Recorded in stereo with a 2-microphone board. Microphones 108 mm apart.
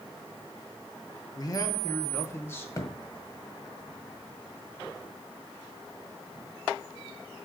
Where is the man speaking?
40° left (ahead or behind), 1.3 m; by 2.7 s 20° left (ahead or behind), 1.9 m.